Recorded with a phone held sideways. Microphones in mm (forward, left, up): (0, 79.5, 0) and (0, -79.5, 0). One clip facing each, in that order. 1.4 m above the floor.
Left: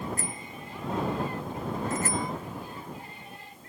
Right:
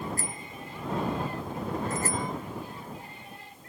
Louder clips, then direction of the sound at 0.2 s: Left 1 dB; 40° right (ahead or behind).